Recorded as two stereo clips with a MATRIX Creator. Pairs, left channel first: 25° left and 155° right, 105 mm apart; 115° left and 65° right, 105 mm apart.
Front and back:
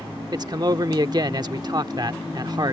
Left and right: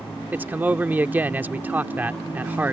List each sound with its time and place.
0.3 s a man speaking: 135° right